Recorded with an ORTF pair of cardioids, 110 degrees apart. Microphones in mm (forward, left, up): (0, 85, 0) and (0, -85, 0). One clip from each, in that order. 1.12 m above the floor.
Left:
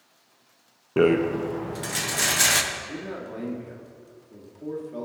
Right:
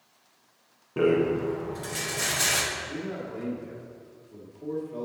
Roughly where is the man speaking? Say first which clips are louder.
Even; ahead.